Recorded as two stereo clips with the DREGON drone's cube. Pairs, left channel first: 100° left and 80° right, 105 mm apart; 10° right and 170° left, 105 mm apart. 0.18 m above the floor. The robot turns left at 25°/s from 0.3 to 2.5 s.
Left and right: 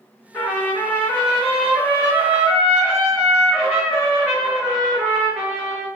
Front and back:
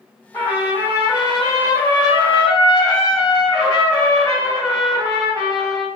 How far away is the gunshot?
I don't hear a gunshot.